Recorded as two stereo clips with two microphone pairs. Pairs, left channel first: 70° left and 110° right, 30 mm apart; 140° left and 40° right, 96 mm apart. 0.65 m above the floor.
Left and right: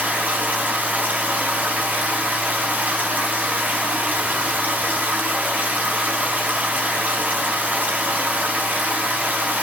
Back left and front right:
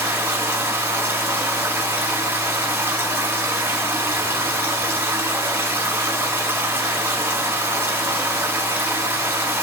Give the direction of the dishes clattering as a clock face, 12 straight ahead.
I don't hear dishes clattering.